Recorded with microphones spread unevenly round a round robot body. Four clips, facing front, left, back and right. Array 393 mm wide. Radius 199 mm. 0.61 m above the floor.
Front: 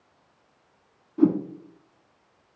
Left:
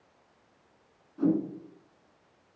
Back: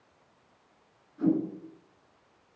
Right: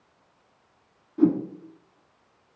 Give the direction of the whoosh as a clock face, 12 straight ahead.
1 o'clock.